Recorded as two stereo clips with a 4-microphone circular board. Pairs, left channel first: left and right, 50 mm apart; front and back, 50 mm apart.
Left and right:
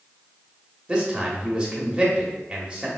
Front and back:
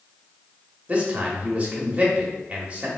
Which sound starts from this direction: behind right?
A man speaking, at 0.9 s.